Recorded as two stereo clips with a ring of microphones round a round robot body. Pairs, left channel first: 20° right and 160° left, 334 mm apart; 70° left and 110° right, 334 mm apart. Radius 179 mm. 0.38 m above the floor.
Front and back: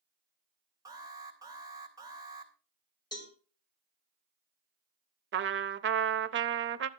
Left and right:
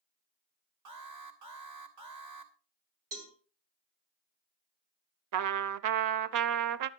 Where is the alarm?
125° right, 2.5 m.